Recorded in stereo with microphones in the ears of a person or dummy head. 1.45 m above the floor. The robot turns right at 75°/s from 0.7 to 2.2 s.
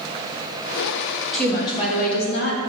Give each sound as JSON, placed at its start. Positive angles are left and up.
{"t": 1.3, "sound": "a woman speaking", "azimuth_deg": 0, "distance_m": 1.4}